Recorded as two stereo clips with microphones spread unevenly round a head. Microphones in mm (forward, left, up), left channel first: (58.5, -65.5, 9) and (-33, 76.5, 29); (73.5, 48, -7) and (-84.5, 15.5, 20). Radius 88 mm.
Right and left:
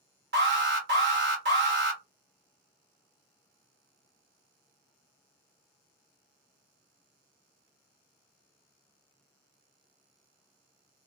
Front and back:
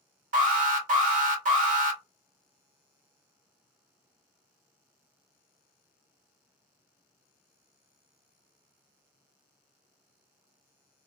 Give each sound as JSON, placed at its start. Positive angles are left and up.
{"t": 0.3, "sound": "an alarm", "azimuth_deg": 155, "distance_m": 1.7}